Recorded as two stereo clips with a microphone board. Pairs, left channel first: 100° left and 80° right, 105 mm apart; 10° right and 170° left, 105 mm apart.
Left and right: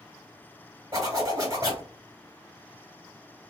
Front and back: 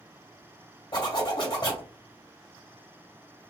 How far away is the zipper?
About 1.8 m.